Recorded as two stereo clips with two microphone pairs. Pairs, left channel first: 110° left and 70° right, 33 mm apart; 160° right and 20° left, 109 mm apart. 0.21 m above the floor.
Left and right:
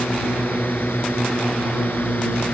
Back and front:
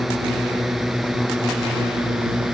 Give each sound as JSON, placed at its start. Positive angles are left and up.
{"t": 0.0, "sound": "a drone", "azimuth_deg": 110}